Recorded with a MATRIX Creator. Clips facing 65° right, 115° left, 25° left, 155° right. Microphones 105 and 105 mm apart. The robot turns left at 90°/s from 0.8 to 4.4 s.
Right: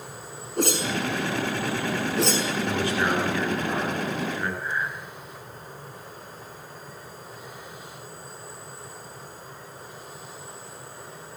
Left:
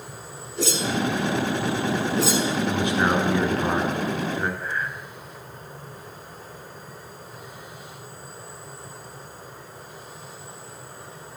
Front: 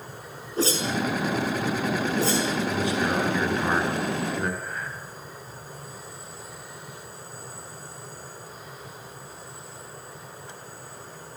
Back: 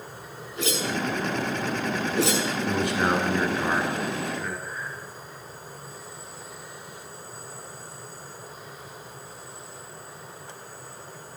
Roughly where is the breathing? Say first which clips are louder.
Even, front 1 dB; ahead.